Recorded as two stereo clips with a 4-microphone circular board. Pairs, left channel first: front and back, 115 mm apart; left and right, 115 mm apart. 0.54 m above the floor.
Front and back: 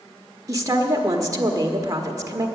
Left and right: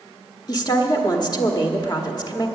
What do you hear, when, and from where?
0.5 s a woman speaking: 130° left, 1.3 m